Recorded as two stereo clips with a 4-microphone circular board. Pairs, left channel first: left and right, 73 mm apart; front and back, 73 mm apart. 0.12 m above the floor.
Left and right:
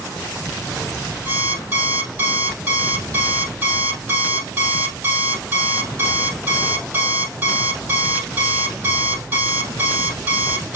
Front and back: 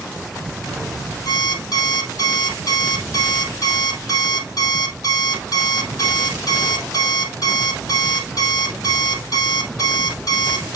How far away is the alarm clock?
About 2.5 m.